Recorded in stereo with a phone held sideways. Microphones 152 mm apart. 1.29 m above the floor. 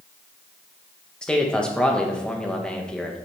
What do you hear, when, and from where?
1.2 s a man speaking: 5° left (ahead or behind), 1.6 m